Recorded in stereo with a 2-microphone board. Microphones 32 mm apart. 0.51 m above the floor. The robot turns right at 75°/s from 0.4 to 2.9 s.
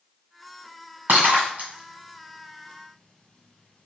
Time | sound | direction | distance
1.1 | breaking glass | 75° right (ahead or behind) | 1.6 m